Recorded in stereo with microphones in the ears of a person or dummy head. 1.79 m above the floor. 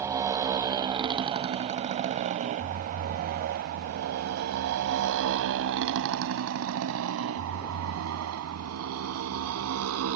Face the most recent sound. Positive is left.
turn(degrees=-80)